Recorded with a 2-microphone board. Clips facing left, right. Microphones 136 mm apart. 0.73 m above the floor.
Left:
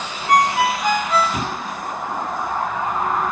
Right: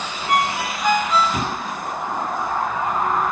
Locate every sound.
0.3 s a ringtone: 45° left (ahead or behind), 2 m